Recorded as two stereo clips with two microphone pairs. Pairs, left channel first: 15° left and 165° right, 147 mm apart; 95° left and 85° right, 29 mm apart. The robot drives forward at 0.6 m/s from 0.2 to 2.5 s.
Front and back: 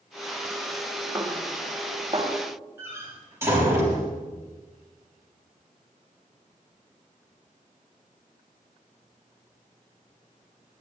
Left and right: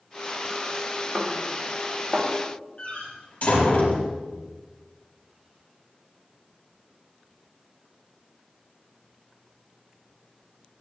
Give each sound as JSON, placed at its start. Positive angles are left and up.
{"t": 1.1, "sound": "a snare drum", "azimuth_deg": -105, "distance_m": 1.1}
{"t": 2.8, "sound": "a door slam", "azimuth_deg": 120, "distance_m": 4.5}